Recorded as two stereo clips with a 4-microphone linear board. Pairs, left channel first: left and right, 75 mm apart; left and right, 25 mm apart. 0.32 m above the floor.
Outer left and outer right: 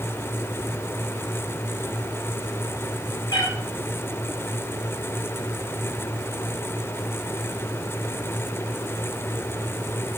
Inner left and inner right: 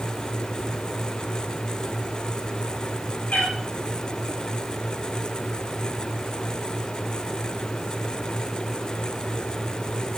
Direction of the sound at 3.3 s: 80° left.